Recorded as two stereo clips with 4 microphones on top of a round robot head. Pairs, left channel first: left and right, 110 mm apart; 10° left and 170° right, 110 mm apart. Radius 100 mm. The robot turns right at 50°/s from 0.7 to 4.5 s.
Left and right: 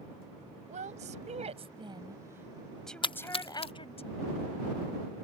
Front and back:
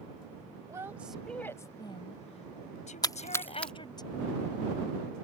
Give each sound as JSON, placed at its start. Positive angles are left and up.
{"t": 0.7, "sound": "a woman speaking", "azimuth_deg": -105}
{"t": 3.0, "sound": "a splash", "azimuth_deg": 60}